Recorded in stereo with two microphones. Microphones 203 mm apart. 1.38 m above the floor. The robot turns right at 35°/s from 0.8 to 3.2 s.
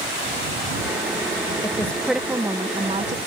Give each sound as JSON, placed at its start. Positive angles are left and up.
{"t": 1.6, "sound": "a woman speaking", "azimuth_deg": 165}